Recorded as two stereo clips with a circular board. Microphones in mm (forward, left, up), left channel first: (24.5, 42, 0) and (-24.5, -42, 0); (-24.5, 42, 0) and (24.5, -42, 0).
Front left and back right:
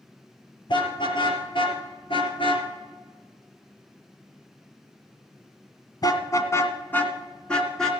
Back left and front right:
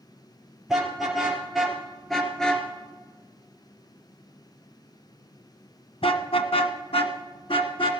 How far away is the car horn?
About 3.5 m.